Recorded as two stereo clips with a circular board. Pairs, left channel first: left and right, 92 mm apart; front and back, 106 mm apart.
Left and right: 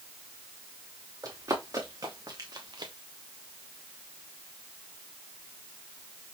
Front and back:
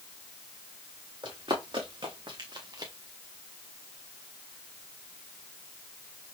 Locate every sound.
1.2 s running footsteps: 140° right, 2.5 m; by 2.9 s 130° right, 1.1 m